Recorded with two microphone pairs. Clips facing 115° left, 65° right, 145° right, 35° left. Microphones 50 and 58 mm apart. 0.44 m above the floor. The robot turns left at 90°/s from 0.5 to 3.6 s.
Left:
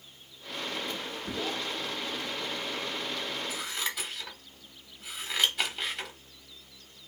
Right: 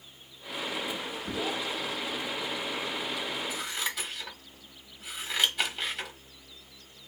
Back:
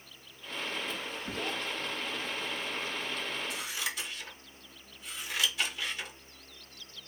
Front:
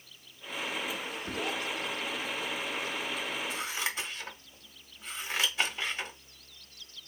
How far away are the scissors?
About 1.2 m.